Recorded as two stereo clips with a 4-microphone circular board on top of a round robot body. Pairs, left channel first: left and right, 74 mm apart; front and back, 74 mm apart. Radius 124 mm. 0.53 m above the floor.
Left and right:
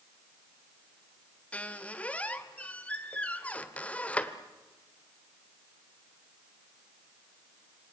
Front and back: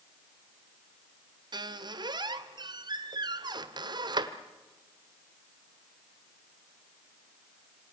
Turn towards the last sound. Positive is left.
turn(degrees=165)